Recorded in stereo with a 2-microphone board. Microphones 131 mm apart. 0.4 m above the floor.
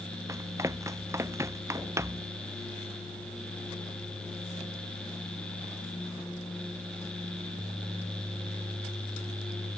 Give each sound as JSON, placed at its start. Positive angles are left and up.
{"t": 0.3, "sound": "running footsteps", "side_deg": -25}